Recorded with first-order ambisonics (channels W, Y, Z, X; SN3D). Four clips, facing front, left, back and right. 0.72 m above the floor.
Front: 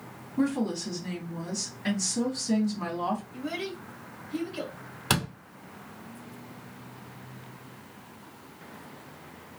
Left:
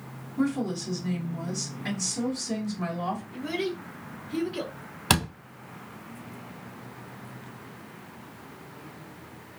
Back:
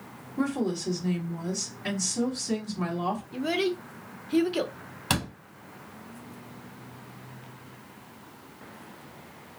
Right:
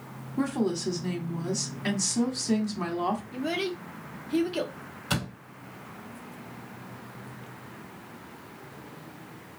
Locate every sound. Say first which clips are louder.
0.4 s a woman speaking: even, front 1 dB; 85° right, 1.6 m
3.3 s a child speaking: right 1 dB, back 7 dB; 155° right, 0.7 m
5.1 s a door slam: left 6 dB, front 1 dB; 80° left, 0.9 m